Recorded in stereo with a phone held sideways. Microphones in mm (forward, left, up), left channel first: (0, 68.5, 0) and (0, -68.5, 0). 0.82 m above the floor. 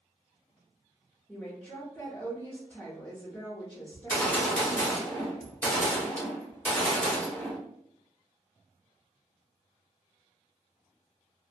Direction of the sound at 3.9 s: 10° left (ahead or behind).